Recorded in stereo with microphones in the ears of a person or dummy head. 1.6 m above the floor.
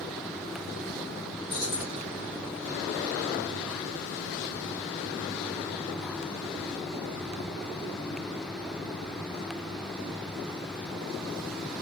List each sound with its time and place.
1.5 s keys jangling: 30° left (ahead or behind), 2.5 m